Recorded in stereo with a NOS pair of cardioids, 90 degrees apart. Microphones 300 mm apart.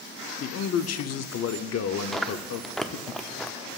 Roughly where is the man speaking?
Ahead left.